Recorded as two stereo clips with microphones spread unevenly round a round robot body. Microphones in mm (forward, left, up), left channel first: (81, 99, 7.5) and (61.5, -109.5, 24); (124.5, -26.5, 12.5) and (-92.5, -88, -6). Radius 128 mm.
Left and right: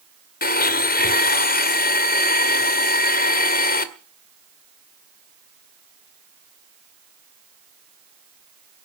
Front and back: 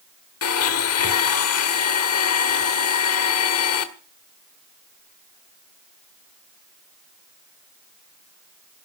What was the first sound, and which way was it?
A blender, 45° left.